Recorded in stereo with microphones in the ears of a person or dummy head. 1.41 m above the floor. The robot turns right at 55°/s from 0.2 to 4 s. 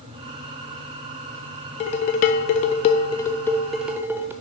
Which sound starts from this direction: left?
Dishes clattering, at 1.8 s.